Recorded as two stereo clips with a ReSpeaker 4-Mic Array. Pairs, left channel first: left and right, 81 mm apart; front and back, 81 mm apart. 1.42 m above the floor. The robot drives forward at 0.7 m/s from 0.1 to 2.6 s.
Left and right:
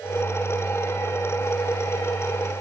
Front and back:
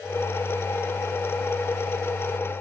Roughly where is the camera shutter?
I don't hear a camera shutter.